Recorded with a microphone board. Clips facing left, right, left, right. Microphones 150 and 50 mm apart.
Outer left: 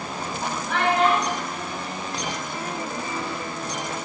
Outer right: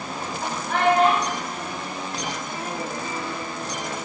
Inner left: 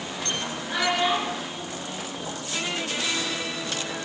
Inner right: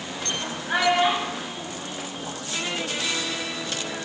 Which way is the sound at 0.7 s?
45° right (ahead or behind).